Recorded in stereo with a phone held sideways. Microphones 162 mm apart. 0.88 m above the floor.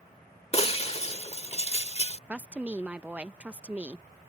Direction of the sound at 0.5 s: 40° left (ahead or behind).